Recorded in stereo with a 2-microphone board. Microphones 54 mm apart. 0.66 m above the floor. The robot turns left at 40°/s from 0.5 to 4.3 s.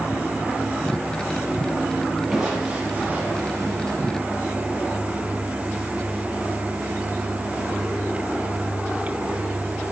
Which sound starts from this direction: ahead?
Crushing, at 2.3 s.